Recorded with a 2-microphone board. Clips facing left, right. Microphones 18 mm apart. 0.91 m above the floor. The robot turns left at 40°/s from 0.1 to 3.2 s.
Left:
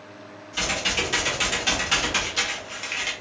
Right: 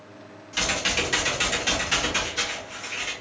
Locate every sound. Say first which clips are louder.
0.5 s typing on a keyboard: even; 145° right, 1.0 m; by 3.1 s 110° left, 1.0 m